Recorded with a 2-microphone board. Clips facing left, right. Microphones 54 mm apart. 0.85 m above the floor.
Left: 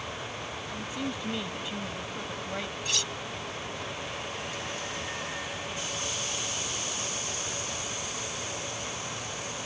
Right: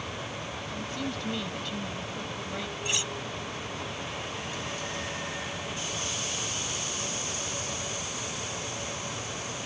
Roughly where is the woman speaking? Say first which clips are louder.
Even; centre.